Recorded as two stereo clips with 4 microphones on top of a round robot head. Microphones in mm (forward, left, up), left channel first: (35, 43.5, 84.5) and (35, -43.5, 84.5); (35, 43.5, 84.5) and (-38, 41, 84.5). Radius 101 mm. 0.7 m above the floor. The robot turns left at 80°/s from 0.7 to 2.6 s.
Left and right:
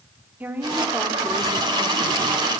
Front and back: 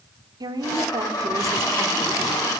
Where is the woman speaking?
160° right, 3 m; by 2.3 s 75° left, 3 m.